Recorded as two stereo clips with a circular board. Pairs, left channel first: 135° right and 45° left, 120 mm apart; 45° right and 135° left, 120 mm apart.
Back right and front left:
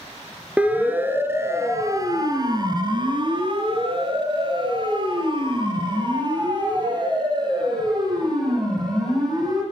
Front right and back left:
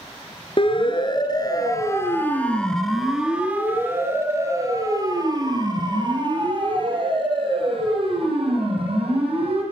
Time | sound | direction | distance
0.6 | a siren | 30° right | 2 m